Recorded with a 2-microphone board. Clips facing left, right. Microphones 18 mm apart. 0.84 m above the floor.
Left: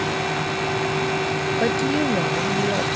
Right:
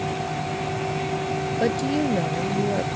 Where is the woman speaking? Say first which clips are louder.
Left 1 dB; 5° left (ahead or behind).